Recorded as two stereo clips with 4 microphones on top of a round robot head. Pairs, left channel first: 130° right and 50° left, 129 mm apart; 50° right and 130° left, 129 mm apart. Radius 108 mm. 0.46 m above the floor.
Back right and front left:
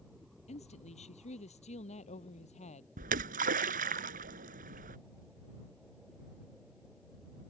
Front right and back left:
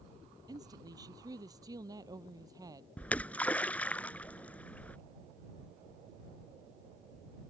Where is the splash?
30° left.